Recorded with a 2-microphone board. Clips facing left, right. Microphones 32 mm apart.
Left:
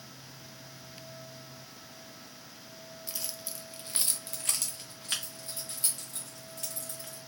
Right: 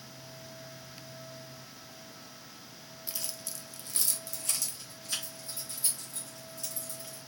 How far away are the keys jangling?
About 0.6 m.